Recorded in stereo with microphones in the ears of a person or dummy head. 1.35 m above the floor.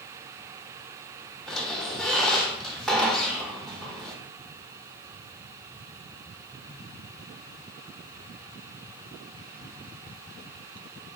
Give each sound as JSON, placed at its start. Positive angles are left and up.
{"t": 1.5, "sound": "a squeak", "side_deg": 0, "distance_m": 0.7}